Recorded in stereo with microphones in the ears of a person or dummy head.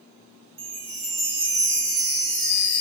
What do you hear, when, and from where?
0.6 s a chime: 30° right (ahead or behind), 1.6 m